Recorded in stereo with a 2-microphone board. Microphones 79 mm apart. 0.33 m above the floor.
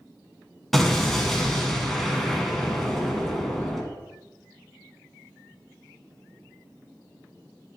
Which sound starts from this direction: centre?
An explosion, at 0.7 s.